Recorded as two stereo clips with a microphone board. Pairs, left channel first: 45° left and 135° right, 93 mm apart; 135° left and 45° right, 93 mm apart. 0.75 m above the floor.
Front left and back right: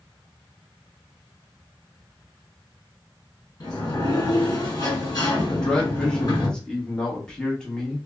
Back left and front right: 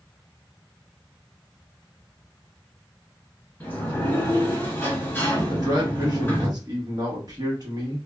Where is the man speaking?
35° right, 1.1 m.